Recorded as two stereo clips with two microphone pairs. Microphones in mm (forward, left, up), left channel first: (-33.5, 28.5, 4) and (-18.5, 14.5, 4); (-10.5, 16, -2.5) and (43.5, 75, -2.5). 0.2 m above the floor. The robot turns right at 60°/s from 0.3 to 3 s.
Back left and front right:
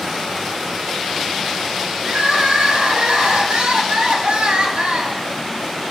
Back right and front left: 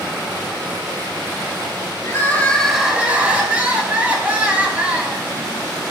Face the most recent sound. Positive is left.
turn(degrees=-20)